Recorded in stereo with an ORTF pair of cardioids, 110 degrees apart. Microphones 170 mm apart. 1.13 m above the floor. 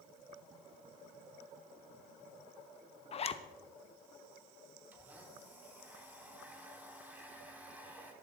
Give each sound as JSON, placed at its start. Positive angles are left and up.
{"t": 3.1, "sound": "a zipper", "azimuth_deg": 35, "distance_m": 1.0}
{"t": 4.9, "sound": "a blender", "azimuth_deg": -10, "distance_m": 2.5}